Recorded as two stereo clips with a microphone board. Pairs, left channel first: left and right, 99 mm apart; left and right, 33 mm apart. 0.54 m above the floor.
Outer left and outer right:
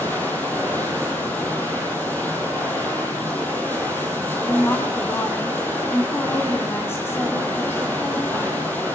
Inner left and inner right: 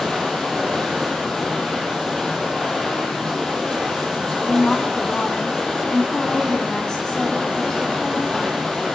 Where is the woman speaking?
25° left (ahead or behind), 4.5 m.